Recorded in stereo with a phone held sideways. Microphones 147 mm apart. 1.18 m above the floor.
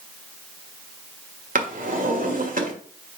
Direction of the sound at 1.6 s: 70° right (ahead or behind).